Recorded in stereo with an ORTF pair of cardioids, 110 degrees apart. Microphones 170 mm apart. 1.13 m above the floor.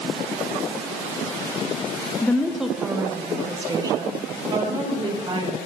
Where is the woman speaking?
15° left, 0.9 m; by 5.6 s 30° right, 3.5 m.